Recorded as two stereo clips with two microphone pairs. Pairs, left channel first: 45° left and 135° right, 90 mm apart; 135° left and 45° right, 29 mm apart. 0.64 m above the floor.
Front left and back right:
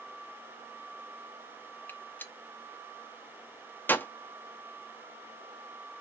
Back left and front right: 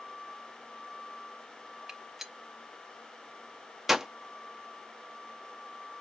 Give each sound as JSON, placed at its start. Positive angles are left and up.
{"t": 1.9, "sound": "a gunshot", "azimuth_deg": 20, "distance_m": 0.6}